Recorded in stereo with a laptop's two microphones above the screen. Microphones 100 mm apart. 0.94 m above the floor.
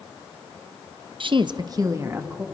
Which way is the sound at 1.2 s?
55° right (ahead or behind).